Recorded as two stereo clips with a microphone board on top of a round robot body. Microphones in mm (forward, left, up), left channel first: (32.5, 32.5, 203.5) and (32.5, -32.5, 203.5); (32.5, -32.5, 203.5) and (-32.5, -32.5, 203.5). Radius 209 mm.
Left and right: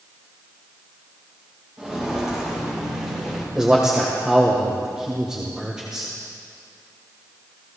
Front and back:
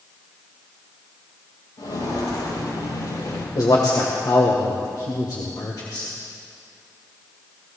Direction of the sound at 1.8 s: 10° right.